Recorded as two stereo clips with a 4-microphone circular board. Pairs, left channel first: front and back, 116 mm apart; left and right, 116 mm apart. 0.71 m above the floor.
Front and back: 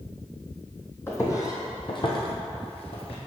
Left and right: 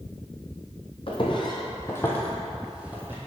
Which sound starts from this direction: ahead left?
Footsteps, at 1.1 s.